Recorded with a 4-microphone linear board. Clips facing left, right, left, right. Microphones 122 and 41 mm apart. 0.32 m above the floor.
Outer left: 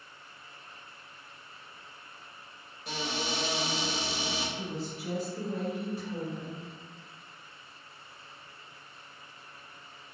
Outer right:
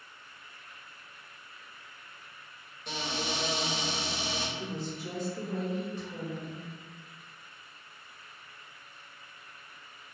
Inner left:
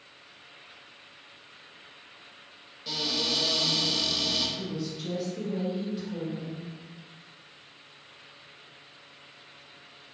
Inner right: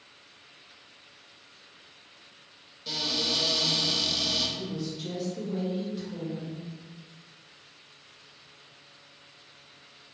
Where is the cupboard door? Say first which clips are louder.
Outer left 1 dB, even; 5° left (ahead or behind), 0.7 m.